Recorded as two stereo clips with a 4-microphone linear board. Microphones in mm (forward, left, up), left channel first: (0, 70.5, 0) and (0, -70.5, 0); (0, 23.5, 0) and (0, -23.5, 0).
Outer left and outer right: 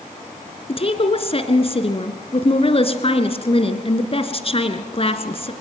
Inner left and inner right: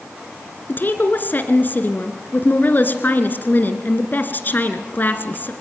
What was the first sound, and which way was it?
A woman speaking, 40° left (ahead or behind).